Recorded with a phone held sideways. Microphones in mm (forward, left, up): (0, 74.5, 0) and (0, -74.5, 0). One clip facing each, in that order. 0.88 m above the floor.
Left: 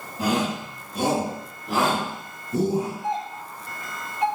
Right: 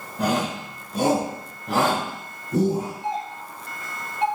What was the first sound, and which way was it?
A shout, 70° right (ahead or behind).